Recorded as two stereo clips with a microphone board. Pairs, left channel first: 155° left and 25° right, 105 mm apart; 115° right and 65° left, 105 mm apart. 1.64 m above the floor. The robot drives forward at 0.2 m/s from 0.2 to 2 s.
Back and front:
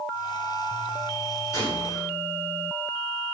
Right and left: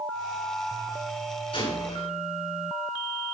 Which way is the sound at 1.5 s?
140° right.